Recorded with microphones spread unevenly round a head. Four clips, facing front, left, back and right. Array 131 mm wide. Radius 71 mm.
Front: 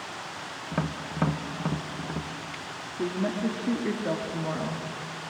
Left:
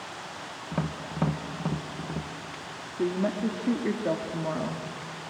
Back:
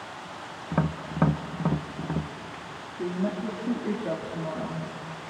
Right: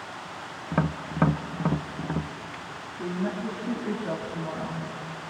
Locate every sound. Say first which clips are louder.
0.7 s tapping: right 5 dB, back 3 dB; 175° left, 0.9 m
3.0 s a woman speaking: left 4 dB, front 1 dB; 95° left, 1.9 m